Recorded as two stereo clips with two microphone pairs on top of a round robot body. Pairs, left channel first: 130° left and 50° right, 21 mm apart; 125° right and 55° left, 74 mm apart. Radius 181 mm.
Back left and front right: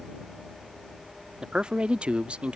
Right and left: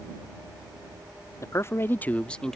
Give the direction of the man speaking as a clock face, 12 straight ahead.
3 o'clock.